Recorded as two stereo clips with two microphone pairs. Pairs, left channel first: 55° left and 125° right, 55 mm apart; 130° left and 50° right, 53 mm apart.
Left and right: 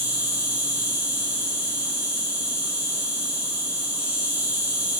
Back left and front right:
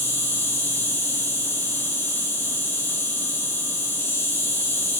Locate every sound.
0.0 s an insect: 165° left, 3 m